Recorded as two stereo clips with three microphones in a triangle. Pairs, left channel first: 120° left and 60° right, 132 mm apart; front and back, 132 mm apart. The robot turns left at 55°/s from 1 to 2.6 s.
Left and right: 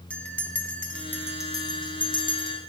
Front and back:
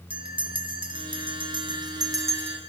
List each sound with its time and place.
0.1 s a bell: 165° right, 0.7 m; by 2.6 s 105° left, 0.7 m